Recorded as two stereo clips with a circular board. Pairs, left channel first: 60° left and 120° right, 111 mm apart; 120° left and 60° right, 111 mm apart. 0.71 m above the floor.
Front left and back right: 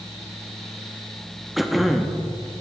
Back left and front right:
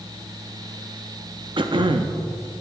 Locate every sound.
1.6 s throat clearing: 30° right, 0.5 m